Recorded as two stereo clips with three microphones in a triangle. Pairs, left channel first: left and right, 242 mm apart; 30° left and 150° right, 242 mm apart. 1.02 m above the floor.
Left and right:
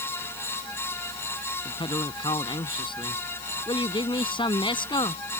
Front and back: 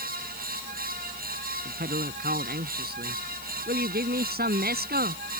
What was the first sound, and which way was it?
A man speaking, 160° left.